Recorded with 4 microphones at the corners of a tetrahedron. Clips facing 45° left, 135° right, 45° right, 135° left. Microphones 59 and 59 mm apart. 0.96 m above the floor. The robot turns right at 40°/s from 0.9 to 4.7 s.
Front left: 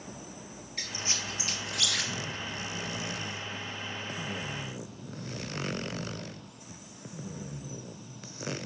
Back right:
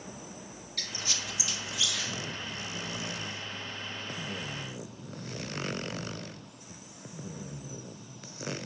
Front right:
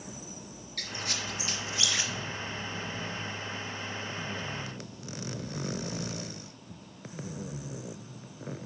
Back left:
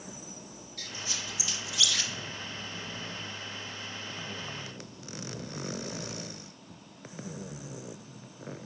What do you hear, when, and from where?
0.8 s a squeak: 20° right, 0.8 m; by 2.1 s 25° left, 0.8 m